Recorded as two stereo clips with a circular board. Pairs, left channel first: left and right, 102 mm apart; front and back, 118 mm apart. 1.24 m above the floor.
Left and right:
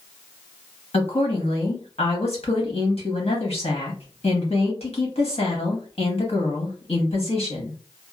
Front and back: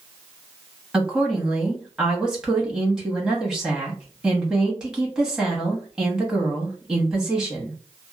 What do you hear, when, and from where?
0.9 s a woman speaking: 95° left, 1.2 m